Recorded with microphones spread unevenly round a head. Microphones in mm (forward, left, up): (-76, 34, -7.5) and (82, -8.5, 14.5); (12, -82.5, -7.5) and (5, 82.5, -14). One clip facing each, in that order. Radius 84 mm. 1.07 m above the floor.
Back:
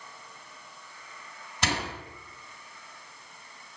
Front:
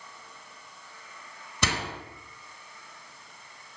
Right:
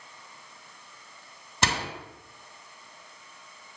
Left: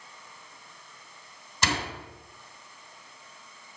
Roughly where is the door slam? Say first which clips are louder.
Even, right 1 dB; ahead right.